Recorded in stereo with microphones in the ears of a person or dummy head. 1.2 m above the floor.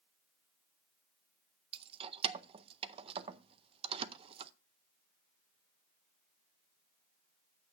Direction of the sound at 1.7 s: 30° right (ahead or behind).